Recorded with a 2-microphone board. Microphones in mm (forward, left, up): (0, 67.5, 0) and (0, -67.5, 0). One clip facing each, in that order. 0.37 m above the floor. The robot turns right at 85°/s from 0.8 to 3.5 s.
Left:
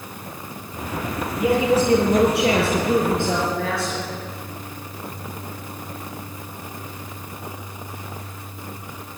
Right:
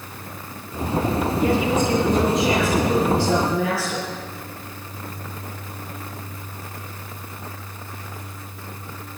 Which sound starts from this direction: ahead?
A woman speaking, at 1.4 s.